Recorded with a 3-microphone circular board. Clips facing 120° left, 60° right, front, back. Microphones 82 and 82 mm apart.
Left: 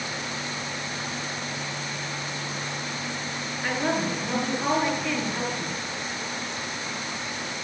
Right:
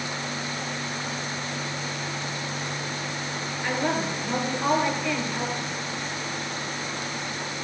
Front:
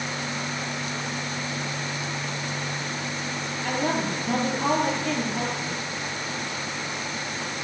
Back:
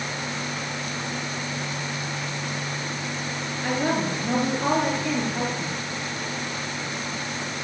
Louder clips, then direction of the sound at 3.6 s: Even, back 2 dB; 165° right.